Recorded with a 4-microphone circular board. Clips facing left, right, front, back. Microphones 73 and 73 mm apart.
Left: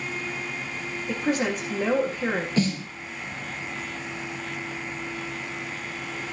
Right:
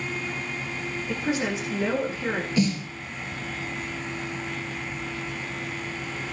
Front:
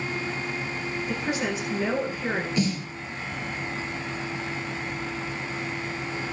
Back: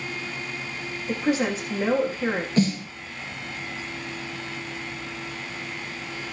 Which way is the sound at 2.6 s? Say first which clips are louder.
Right 3 dB, back 4 dB; 135° left.